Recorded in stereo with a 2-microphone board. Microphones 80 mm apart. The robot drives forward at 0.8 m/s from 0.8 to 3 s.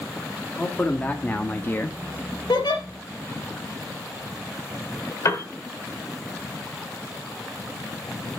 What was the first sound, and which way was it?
A man speaking, 20° left (ahead or behind).